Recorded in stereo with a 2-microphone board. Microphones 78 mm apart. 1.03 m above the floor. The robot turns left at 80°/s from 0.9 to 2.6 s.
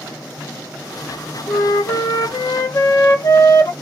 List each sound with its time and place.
1.5 s a flute: 150° left, 0.9 m; by 3.7 s 60° left, 0.9 m